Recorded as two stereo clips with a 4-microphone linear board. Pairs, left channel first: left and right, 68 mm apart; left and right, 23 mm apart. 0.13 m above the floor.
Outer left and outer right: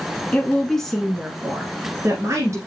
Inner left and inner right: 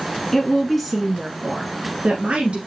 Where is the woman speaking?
20° left (ahead or behind), 1.3 m; by 2.6 s 40° right (ahead or behind), 1.6 m.